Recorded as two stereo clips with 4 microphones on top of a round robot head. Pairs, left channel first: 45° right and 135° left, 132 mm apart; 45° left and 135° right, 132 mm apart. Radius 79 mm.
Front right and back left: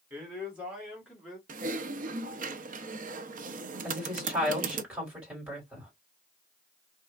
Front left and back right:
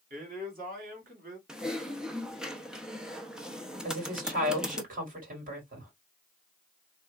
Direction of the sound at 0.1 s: 145° right.